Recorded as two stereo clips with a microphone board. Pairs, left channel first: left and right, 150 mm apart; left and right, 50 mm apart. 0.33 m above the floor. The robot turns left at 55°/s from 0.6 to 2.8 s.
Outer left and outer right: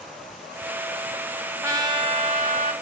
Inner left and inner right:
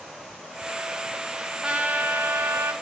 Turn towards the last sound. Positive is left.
turn(degrees=-80)